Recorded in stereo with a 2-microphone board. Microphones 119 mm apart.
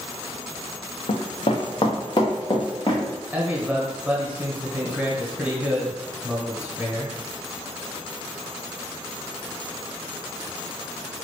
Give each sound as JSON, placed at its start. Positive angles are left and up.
{"t": 1.1, "sound": "running footsteps", "side_deg": 60, "distance_m": 0.7}
{"t": 3.3, "sound": "a man speaking", "side_deg": -15, "distance_m": 1.0}